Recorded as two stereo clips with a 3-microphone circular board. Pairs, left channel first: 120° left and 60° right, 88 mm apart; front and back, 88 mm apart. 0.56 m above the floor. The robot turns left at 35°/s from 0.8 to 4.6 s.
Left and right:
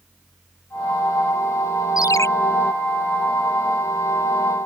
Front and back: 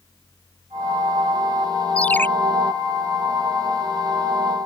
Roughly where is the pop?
No pop in this recording.